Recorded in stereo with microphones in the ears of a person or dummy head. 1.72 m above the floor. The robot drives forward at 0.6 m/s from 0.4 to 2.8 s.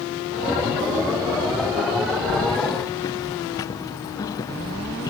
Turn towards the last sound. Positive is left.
turn(degrees=20)  # may be behind; listen again after turning